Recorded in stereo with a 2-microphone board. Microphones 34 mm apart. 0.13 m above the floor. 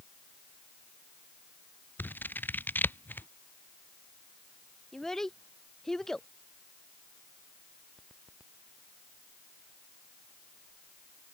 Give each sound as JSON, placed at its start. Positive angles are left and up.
{"t": 2.0, "sound": "scissors", "side_deg": 75}
{"t": 4.9, "sound": "a child speaking", "side_deg": 15}